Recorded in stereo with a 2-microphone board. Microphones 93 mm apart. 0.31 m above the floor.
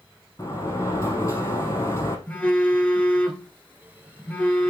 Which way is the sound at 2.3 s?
20° left (ahead or behind).